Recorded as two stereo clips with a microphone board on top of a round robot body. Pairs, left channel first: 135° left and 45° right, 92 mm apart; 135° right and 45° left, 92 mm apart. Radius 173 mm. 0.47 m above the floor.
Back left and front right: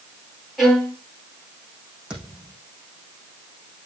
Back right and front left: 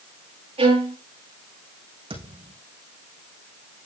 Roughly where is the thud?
Ahead left.